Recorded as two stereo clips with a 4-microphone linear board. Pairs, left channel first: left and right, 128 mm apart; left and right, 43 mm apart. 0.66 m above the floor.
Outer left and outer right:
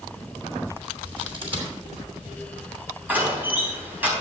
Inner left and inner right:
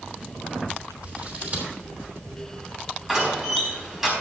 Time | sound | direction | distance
1.0 | scissors | 40° right (ahead or behind) | 3 m
3.1 | a door slam | 15° right (ahead or behind) | 4 m